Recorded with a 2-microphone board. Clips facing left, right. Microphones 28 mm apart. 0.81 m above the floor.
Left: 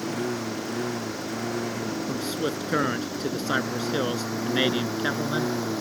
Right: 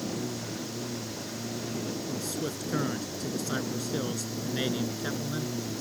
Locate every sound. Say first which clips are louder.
0.0 s a lawn mower: left 5 dB; 55° left (ahead or behind); by 5.8 s 60° left (ahead or behind)
2.1 s a man speaking: left 5 dB; 35° left (ahead or behind)